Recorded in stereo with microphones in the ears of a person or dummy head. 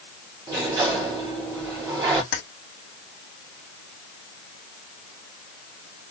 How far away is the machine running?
No machine running in this recording.